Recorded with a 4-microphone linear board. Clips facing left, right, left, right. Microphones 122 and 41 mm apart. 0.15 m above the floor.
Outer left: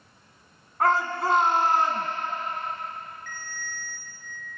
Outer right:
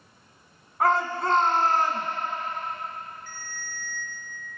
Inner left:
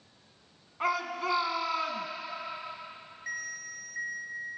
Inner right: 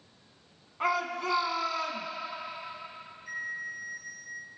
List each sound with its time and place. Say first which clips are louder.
0.8 s a shout: even, inner right 1 dB; centre (ahead or behind), 1.3 m; by 2.1 s 25° left (ahead or behind), 1.3 m
3.3 s a ringtone: outer left 2 dB, inner right 2 dB; 65° left (ahead or behind), 2 m